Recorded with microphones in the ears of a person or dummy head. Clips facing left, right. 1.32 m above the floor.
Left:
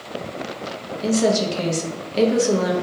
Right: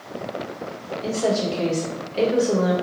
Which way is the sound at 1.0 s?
55° left (ahead or behind).